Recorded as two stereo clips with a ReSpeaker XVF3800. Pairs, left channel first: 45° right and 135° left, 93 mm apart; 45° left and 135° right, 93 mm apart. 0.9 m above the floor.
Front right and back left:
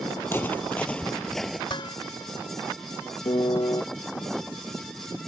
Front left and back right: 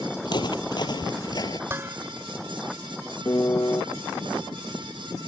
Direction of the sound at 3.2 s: 10° right.